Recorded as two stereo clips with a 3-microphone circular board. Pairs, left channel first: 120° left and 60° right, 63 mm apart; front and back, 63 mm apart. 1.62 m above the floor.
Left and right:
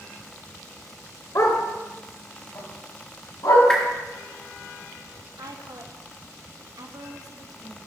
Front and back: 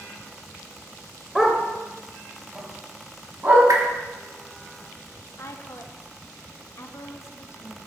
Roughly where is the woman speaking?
Ahead right.